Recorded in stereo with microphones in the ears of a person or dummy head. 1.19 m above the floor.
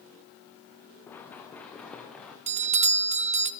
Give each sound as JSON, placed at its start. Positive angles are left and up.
{"t": 1.1, "sound": "running footsteps", "side_deg": 10, "distance_m": 5.0}
{"t": 2.5, "sound": "a doorbell", "side_deg": -35, "distance_m": 0.7}